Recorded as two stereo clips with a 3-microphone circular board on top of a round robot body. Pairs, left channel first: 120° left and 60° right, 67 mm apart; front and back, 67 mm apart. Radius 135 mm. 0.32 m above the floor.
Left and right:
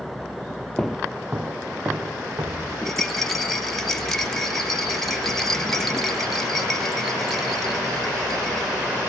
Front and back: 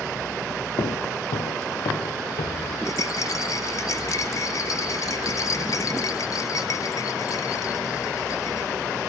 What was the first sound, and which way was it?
Footsteps, 40° left.